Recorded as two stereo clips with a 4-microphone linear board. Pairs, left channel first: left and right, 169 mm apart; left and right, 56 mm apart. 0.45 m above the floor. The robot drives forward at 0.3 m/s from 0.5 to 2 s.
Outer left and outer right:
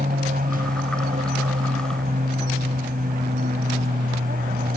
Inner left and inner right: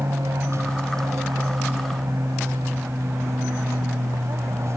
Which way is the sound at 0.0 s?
55° right (ahead or behind).